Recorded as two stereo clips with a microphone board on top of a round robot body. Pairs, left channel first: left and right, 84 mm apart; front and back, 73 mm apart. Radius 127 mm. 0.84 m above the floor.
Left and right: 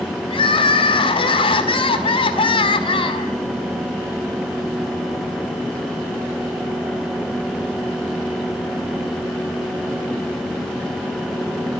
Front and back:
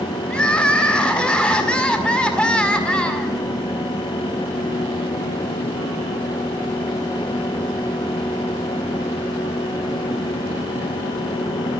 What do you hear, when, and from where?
0.3 s crying: 75° left, 2.0 m